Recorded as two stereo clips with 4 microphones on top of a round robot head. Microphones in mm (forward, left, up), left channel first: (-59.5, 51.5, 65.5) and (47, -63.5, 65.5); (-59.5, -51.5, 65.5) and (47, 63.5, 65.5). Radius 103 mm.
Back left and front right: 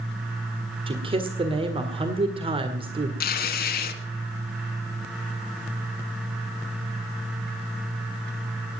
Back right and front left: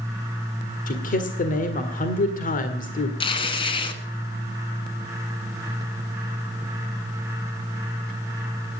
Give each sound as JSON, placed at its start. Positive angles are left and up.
{"t": 0.9, "sound": "a man speaking", "azimuth_deg": -100, "distance_m": 1.8}
{"t": 3.2, "sound": "tearing paper", "azimuth_deg": 165, "distance_m": 1.5}